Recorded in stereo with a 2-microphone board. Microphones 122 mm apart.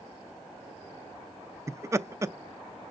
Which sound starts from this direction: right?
Laughter, at 1.7 s.